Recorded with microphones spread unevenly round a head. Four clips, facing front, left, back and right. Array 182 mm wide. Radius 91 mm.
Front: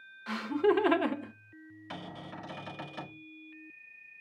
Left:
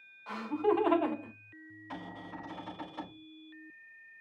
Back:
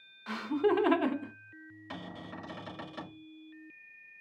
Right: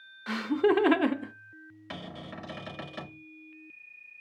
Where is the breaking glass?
I don't hear breaking glass.